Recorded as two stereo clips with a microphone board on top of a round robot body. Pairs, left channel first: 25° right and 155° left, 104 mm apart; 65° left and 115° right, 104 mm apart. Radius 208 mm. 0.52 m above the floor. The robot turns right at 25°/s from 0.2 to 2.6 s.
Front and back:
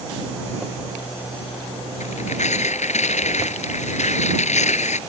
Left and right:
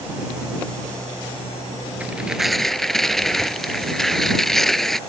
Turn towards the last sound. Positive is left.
turn(degrees=-20)